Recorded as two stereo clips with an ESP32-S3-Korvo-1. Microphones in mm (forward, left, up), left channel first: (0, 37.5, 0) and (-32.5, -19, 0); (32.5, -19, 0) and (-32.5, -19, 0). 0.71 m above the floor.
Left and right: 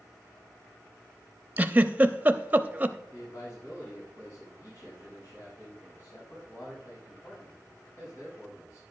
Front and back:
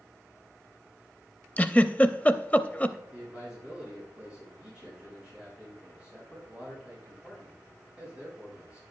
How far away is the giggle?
About 0.6 m.